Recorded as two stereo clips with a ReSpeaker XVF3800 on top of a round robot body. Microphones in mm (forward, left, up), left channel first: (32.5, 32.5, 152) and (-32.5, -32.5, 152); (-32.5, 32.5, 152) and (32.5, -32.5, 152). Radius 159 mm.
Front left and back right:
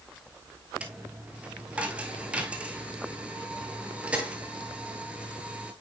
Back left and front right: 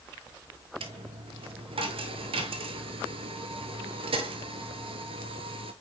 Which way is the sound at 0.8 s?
60° right.